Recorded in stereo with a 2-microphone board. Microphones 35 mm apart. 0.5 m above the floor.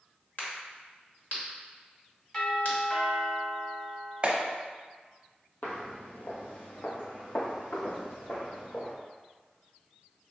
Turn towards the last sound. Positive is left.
turn(degrees=70)  # may be behind; listen again after turning